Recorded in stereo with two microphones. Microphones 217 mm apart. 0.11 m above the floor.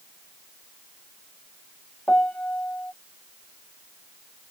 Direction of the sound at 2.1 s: 5° left (ahead or behind).